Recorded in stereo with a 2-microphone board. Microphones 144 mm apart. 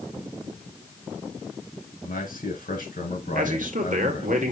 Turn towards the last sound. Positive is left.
turn(degrees=-65)  # may be behind; listen again after turning